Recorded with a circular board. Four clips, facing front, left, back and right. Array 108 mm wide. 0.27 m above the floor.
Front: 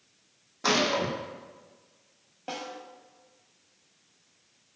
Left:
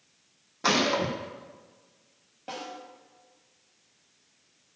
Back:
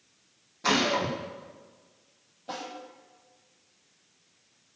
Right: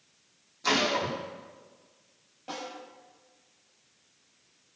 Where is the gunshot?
60° left, 4 m.